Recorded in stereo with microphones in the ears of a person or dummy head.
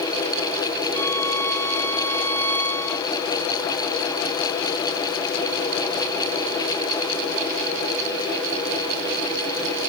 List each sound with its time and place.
0.9 s a violin: 15° left (ahead or behind), 0.7 m